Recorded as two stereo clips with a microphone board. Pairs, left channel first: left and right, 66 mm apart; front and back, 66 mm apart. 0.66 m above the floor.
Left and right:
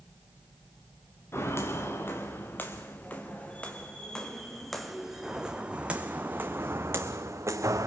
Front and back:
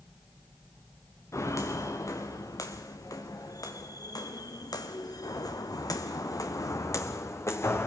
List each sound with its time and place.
1.3 s footsteps: 40° left, 3.5 m; by 7.9 s 50° right, 2.5 m